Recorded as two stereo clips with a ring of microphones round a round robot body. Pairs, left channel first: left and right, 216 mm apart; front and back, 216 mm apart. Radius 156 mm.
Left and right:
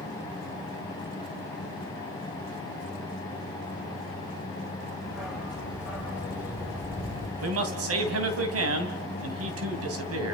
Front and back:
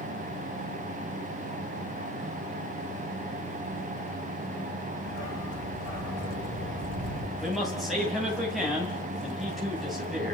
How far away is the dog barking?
About 7.5 m.